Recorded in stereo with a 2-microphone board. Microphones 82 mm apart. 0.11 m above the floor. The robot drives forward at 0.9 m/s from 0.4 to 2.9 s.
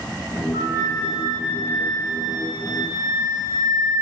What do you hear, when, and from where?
0.5 s a flute: 50° right (ahead or behind), 1.3 m; by 3.9 s 20° right (ahead or behind), 3 m